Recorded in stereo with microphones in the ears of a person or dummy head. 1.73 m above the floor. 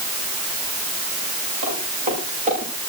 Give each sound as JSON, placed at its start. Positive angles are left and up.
{"t": 1.6, "sound": "footsteps", "side_deg": -40, "distance_m": 9.0}